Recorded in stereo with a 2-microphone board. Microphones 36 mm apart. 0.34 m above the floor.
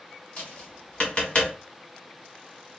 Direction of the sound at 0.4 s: 35° left (ahead or behind).